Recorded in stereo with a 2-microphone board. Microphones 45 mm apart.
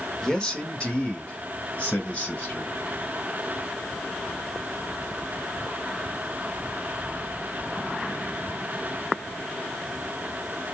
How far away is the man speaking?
About 0.9 m.